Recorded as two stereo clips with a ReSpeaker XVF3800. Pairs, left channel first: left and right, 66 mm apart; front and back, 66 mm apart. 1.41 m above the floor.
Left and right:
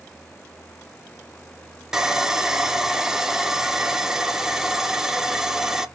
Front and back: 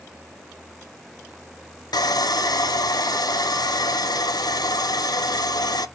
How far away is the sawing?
About 0.5 m.